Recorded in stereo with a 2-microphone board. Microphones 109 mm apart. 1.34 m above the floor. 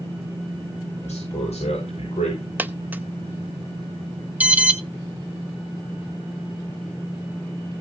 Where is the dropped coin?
15° right (ahead or behind), 0.6 m.